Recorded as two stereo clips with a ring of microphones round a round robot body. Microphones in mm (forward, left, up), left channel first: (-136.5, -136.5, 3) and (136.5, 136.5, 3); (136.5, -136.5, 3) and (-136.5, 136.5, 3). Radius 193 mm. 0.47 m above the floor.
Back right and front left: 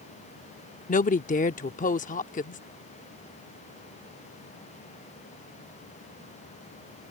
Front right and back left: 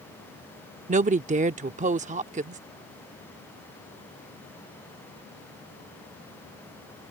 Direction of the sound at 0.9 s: Straight behind.